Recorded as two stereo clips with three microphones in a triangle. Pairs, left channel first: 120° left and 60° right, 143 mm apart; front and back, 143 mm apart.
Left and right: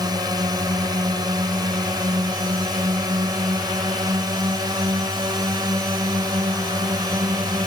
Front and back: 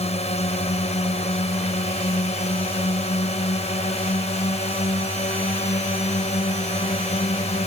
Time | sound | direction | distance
0.0 | a drone | 10° right | ?